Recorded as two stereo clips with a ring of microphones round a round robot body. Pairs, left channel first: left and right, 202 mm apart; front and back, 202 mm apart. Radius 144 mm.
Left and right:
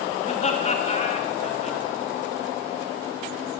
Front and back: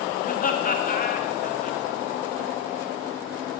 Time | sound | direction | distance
0.2 | laughter | 40° left | 1.8 m